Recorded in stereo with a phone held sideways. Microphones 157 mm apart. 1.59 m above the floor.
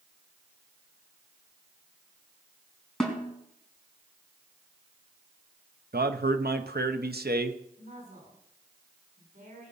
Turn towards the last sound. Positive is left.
turn(degrees=-65)  # may be behind; listen again after turning